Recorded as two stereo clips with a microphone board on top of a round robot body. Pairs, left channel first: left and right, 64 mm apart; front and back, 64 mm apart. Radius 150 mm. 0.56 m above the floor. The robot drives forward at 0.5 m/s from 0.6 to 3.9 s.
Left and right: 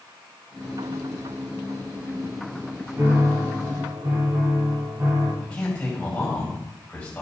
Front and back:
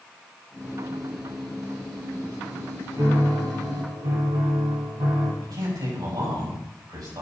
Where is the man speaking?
160° left, 5 m.